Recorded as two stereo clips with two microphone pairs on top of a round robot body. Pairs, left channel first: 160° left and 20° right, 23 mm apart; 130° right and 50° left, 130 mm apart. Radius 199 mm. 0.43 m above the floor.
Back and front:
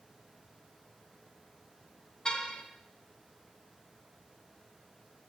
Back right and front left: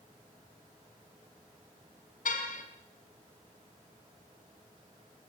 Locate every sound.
2.2 s a car horn: 145° right, 2.5 m